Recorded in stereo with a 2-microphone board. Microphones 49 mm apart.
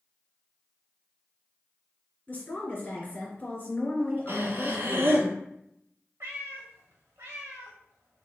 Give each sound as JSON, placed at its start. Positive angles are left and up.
{"t": 2.3, "sound": "a woman speaking", "side_deg": 35, "distance_m": 1.9}
{"t": 4.3, "sound": "breathing", "side_deg": -50, "distance_m": 0.8}
{"t": 6.2, "sound": "a cat meowing", "side_deg": -60, "distance_m": 1.3}